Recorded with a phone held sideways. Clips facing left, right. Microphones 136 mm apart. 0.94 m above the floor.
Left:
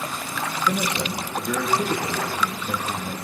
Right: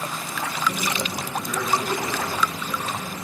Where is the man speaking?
65° left (ahead or behind), 1.7 m.